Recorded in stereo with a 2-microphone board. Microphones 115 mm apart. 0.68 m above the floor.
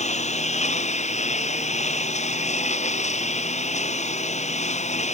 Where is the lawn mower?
80° left.